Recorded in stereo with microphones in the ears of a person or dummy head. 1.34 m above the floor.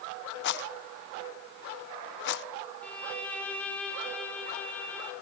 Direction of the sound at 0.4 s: 60° left (ahead or behind).